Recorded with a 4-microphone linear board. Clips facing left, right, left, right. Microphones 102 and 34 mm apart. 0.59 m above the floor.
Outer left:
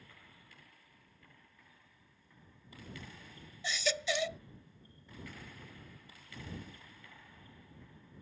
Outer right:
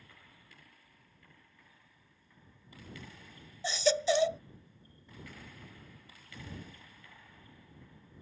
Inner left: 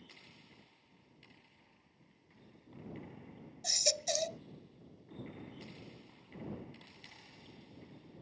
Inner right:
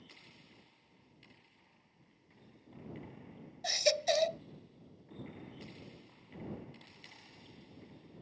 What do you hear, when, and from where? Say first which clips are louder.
3.6 s a baby crying: outer right 7 dB, inner right 5 dB; 35° right (ahead or behind)